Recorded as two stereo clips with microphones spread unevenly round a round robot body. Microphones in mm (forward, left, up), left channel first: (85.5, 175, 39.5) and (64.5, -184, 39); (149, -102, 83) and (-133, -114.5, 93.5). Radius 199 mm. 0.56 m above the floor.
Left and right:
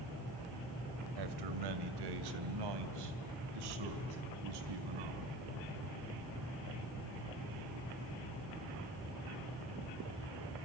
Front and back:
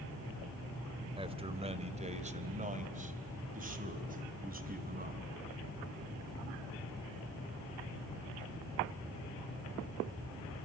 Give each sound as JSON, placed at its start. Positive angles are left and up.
{"t": 1.2, "sound": "a man speaking", "azimuth_deg": -105, "distance_m": 2.5}